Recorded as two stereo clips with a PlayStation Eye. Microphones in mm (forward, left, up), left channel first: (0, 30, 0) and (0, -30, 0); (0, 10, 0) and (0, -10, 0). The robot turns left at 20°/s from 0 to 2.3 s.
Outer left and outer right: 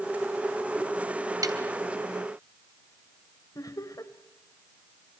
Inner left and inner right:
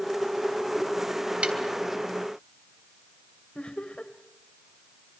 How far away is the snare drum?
About 2.5 m.